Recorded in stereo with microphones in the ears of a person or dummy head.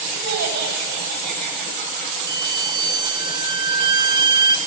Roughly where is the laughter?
Right.